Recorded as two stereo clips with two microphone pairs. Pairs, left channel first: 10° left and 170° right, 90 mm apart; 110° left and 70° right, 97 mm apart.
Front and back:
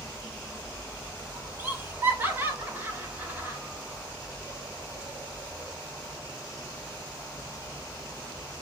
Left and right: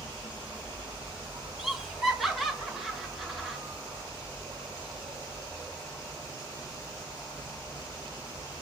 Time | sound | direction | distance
0.0 | an insect | 105° right | 2.5 m
1.6 | laughter | 160° right | 1.0 m